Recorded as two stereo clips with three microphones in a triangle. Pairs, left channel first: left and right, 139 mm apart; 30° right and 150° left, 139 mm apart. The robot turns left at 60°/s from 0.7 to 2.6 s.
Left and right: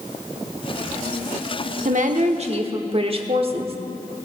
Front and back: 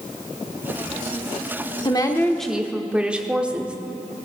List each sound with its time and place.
1.9 s a woman speaking: 85° right, 1.0 m; by 3.8 s 130° right, 1.0 m